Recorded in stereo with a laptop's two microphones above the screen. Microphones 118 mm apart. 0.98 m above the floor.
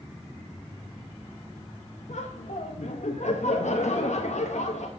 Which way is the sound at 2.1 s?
80° left.